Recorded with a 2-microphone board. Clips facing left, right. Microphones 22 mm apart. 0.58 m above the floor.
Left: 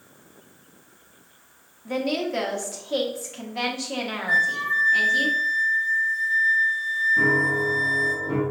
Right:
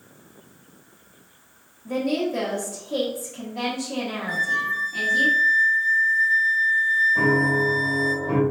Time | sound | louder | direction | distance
1.9 | a woman speaking | right 1 dB | 30° left (ahead or behind) | 1.1 m
4.3 | a flute | left 3 dB | 10° left (ahead or behind) | 0.8 m
7.2 | a piano | even | 70° right (ahead or behind) | 2.5 m